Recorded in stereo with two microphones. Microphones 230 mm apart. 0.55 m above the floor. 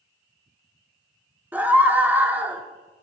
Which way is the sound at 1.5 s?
5° right (ahead or behind).